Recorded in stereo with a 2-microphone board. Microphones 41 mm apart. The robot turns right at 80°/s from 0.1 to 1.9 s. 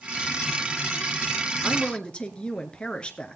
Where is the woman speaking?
30° left (ahead or behind), 1.2 m; by 3.4 s 25° left (ahead or behind), 1.2 m.